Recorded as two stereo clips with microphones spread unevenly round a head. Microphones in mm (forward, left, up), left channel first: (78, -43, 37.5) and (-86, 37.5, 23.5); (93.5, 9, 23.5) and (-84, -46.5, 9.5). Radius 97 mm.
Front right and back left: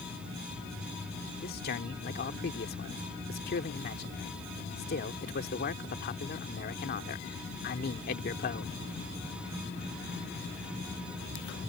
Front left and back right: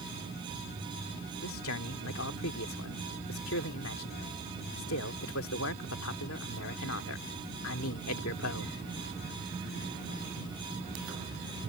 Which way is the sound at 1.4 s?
15° left.